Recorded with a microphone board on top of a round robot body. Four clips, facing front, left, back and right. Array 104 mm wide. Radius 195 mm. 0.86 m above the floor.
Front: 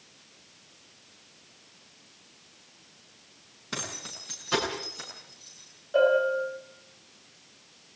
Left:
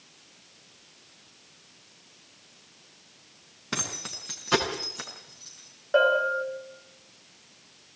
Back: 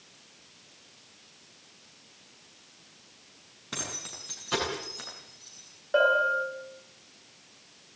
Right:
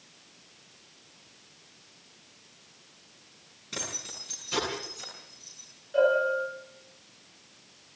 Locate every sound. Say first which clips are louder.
3.7 s keys jangling: left 4 dB, front 2 dB; 85° left, 7.5 m; by 5.7 s 95° left, 9.5 m
5.9 s a bell: left 1 dB, front 1 dB; 120° left, 9 m